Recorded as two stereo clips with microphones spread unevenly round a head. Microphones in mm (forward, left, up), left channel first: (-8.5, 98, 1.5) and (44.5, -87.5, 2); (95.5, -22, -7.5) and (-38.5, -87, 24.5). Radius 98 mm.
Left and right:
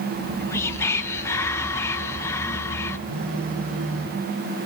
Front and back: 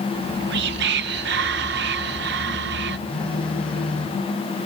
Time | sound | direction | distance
0.1 | whispering | 175° right | 1.4 m
3.1 | a phone buzzing | 60° right | 4 m